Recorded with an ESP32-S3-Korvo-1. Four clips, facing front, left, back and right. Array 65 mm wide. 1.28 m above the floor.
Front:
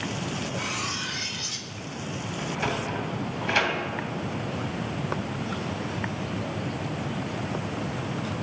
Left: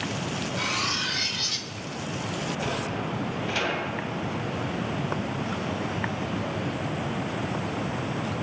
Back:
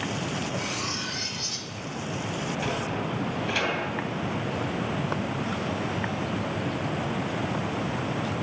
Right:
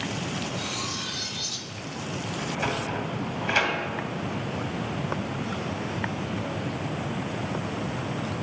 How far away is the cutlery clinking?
About 0.5 m.